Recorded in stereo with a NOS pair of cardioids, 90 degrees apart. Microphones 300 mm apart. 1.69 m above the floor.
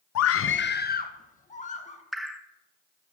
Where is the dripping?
Straight ahead, 1.7 m.